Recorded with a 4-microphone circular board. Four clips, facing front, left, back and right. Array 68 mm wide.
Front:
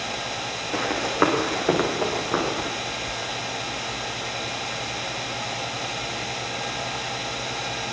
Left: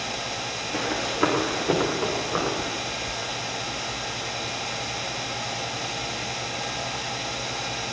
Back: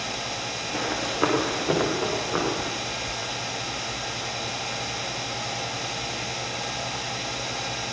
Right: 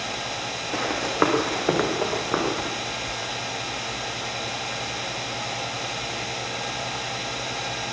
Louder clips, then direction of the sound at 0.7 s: Right 4 dB, front 5 dB; 40° right.